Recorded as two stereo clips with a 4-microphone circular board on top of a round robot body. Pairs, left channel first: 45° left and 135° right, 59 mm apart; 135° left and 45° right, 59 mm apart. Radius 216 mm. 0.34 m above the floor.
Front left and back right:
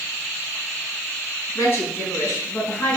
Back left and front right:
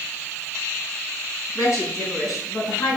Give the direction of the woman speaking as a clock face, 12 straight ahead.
9 o'clock.